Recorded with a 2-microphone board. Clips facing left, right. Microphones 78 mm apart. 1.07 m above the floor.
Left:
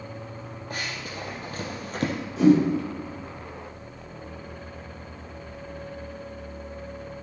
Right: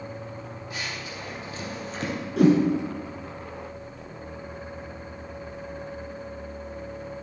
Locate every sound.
0.7 s running footsteps: 50° left (ahead or behind), 2.5 m; by 2.1 s 55° left (ahead or behind), 1.8 m
2.4 s a whoosh: 70° right (ahead or behind), 2.5 m